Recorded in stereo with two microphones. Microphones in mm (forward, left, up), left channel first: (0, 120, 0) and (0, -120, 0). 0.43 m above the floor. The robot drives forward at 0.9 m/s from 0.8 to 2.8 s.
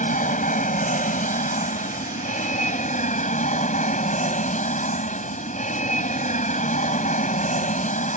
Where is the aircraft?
30° left (ahead or behind).